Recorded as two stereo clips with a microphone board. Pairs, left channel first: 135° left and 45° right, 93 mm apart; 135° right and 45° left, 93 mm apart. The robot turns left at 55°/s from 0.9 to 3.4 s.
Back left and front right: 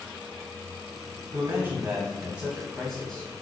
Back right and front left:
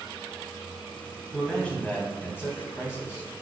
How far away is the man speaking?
About 1.2 m.